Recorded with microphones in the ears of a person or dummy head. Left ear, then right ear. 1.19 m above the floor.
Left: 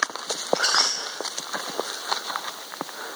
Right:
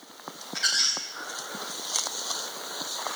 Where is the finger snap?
I don't hear a finger snap.